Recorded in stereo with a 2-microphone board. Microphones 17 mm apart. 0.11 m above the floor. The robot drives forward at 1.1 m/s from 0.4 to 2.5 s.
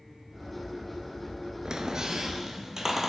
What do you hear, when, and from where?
1.6 s a squeak: 40° right (ahead or behind), 0.5 m; by 3.1 s 20° right (ahead or behind), 1.0 m